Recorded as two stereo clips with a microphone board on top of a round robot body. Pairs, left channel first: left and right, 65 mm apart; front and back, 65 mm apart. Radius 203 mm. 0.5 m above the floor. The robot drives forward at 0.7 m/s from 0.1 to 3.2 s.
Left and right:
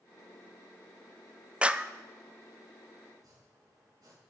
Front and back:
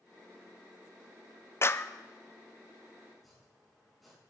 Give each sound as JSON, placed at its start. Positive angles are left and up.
{"t": 1.6, "sound": "a clap", "azimuth_deg": -25, "distance_m": 0.8}
{"t": 3.1, "sound": "chopping", "azimuth_deg": -90, "distance_m": 5.0}